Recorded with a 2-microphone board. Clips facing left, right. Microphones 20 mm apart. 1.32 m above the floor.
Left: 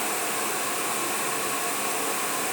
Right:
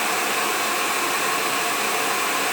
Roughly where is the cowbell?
No cowbell in this recording.